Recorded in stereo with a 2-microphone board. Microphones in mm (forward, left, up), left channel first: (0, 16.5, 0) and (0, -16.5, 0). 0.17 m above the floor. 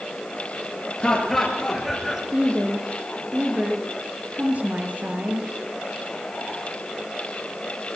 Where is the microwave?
I don't hear a microwave.